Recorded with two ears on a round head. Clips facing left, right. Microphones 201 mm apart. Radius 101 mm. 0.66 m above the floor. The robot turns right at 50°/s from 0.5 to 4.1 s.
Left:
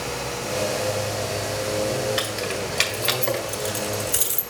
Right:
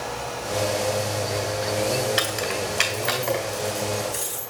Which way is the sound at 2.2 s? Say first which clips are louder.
Even; 5° right (ahead or behind).